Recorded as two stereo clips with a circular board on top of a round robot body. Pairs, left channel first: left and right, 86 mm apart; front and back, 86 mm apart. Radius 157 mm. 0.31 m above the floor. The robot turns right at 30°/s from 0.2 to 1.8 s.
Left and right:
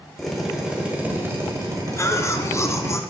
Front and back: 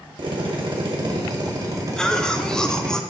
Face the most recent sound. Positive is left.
turn(degrees=75)